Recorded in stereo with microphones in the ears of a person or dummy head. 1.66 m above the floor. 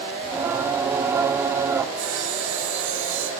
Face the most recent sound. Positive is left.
turn(degrees=-80)